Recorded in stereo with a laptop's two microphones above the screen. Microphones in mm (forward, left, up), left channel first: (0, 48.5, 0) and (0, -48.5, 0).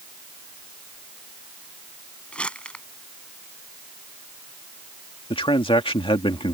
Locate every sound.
2.3 s crumpling: 10° left (ahead or behind)
5.3 s a man speaking: 70° left (ahead or behind)